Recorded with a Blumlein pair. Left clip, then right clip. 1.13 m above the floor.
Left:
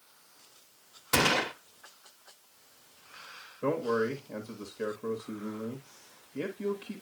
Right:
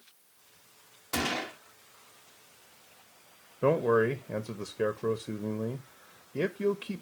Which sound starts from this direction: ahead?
A man speaking, at 3.6 s.